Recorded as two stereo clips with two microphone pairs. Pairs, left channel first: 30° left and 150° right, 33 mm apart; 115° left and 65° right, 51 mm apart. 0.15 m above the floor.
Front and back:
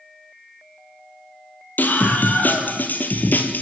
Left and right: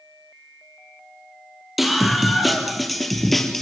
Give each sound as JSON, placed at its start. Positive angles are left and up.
{"t": 1.8, "sound": "a scream", "azimuth_deg": 20, "distance_m": 4.5}